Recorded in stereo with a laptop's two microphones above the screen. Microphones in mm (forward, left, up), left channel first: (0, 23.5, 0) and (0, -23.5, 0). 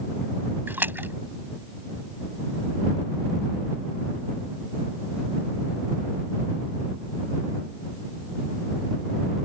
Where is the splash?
50° right (ahead or behind).